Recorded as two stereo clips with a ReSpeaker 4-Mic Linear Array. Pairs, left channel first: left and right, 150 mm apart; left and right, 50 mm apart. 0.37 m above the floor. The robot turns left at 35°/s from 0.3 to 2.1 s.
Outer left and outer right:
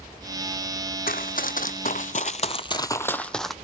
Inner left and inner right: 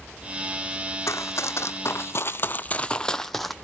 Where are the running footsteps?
70° left (ahead or behind), 0.9 m; by 3.5 s centre (ahead or behind), 0.8 m.